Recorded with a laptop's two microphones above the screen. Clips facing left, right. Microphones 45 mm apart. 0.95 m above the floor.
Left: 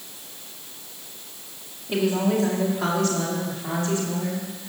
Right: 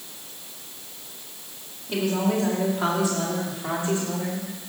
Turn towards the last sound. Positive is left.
turn(degrees=-30)  # may be behind; listen again after turning